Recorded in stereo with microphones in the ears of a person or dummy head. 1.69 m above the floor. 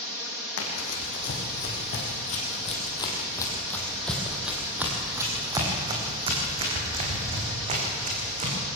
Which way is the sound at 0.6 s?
60° left (ahead or behind).